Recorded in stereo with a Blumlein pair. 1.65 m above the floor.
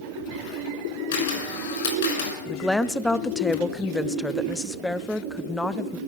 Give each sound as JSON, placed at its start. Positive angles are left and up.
{"t": 1.1, "sound": "a camera shutter", "azimuth_deg": 60, "distance_m": 5.5}
{"t": 2.5, "sound": "a woman speaking", "azimuth_deg": 5, "distance_m": 0.6}